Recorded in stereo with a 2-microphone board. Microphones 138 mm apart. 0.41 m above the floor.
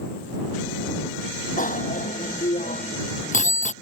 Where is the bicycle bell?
70° left (ahead or behind); by 3.7 s 60° left (ahead or behind).